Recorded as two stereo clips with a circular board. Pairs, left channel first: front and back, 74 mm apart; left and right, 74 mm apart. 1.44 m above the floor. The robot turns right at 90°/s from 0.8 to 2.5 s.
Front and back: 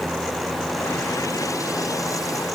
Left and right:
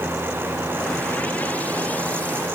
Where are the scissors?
No scissors in this recording.